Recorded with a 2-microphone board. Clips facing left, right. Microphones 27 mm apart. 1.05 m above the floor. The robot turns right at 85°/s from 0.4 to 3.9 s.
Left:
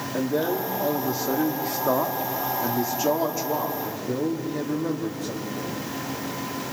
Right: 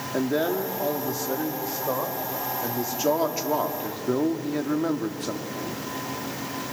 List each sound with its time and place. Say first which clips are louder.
0.1 s a man speaking: even; 35° right, 2.5 m; by 5.8 s 95° right, 2.5 m